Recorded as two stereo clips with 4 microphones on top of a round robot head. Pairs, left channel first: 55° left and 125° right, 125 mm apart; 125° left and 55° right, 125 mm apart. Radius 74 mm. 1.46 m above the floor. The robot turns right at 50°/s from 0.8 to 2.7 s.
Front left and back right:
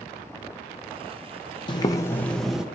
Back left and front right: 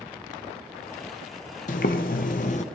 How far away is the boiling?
About 0.8 m.